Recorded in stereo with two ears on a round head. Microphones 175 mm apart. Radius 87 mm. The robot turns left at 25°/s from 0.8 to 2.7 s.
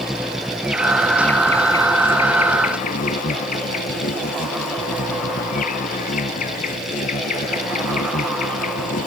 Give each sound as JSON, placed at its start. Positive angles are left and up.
{"t": 0.0, "sound": "an insect", "azimuth_deg": -175}